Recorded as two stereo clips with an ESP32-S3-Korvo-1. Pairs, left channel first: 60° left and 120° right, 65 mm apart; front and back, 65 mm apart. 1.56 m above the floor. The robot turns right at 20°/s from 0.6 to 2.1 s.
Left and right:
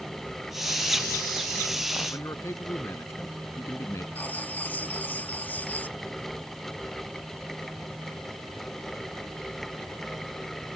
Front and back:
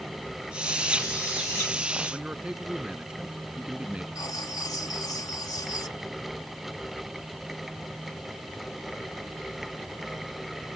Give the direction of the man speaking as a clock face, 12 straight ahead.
9 o'clock.